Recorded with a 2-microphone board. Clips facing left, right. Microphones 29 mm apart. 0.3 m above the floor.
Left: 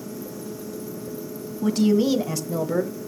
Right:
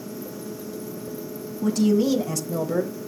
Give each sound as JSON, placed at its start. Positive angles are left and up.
{"t": 1.6, "sound": "a woman speaking", "side_deg": 35, "distance_m": 1.5}